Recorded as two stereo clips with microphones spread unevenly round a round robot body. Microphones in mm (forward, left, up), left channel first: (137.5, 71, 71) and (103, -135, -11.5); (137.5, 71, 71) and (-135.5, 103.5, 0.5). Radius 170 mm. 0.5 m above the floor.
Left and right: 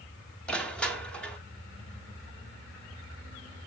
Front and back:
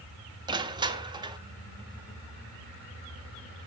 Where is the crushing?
160° right, 0.8 m.